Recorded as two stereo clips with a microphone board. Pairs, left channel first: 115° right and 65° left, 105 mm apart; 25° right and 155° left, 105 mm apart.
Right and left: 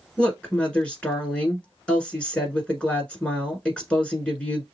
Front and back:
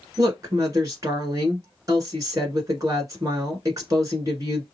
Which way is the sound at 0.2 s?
Straight behind.